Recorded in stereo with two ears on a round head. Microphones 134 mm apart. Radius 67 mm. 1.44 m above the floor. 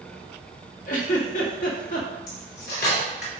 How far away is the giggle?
About 1.5 m.